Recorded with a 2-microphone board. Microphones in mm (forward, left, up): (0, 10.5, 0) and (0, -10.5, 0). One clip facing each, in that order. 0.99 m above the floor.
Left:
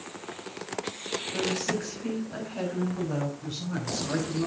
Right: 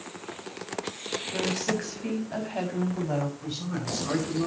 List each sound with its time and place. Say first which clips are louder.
1.3 s a woman speaking: right 1 dB; 85° right, 6 m
3.4 s a man speaking: right 1 dB; 45° right (ahead or behind), 8.5 m